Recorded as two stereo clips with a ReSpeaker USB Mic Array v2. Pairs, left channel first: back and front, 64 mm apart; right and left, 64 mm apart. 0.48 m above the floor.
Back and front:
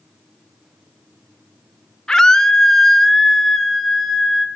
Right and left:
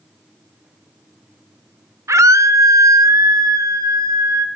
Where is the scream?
105° left, 1.1 m; by 4.5 s 90° left, 2.5 m.